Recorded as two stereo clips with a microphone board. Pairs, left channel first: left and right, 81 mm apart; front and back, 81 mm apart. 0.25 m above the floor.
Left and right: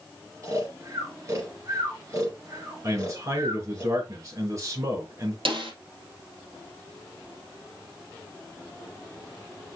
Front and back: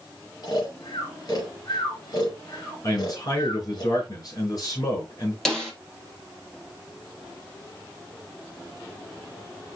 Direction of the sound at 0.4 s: 40° right.